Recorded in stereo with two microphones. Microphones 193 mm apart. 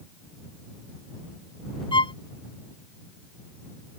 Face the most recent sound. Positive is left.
turn(degrees=30)  # may be behind; listen again after turning